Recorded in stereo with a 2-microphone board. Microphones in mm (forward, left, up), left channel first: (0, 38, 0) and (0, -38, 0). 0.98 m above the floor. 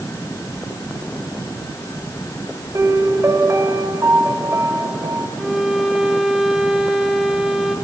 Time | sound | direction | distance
2.7 | a piano | 40° right (ahead or behind) | 3.5 m
5.4 | a violin | 5° right (ahead or behind) | 3 m